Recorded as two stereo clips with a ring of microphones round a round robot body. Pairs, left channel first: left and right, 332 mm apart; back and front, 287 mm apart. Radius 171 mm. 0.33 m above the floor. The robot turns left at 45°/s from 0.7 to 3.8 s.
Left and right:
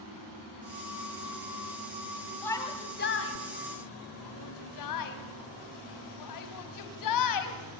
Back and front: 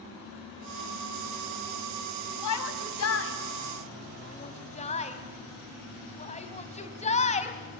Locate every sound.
2.4 s a shout: 175° left, 2.5 m; by 7.6 s 115° left, 2.5 m